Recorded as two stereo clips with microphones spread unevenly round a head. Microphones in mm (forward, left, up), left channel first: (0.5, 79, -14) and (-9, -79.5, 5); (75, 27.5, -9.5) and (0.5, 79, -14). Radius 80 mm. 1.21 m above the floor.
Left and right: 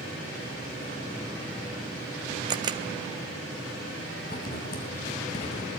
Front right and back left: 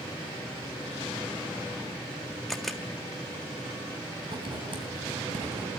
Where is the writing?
120° left, 3.5 m.